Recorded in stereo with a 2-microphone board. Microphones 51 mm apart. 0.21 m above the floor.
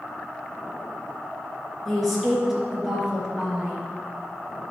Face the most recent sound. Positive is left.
turn(degrees=-15)  # may be behind; listen again after turning